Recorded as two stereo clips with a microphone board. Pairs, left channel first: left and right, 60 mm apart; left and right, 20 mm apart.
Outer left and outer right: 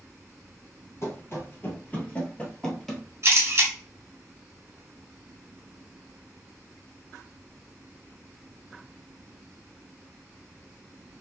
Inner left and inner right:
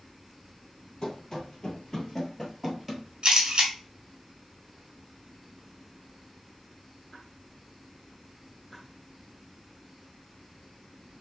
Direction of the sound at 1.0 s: 45° left (ahead or behind).